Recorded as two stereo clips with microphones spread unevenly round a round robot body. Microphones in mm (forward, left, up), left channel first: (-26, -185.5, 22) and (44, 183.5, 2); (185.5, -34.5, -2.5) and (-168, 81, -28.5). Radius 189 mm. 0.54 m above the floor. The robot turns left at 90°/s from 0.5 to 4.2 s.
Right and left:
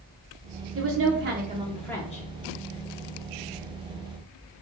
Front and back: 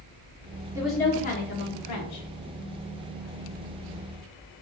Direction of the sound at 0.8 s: 90° left.